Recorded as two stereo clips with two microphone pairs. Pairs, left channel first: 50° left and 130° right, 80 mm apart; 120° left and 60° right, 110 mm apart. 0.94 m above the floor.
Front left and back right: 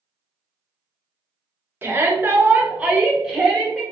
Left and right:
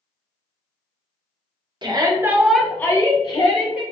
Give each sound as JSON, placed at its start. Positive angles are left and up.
{"t": 1.8, "sound": "a shout", "azimuth_deg": -80, "distance_m": 0.7}